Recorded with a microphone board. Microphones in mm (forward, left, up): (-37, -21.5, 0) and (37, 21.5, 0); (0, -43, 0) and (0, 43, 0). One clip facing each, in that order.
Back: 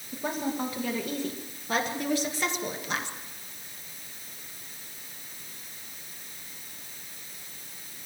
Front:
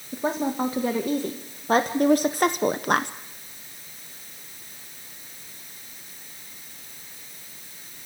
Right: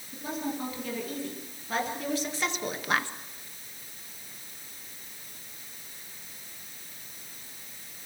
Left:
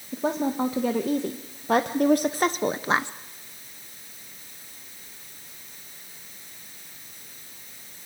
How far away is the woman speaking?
About 2 m.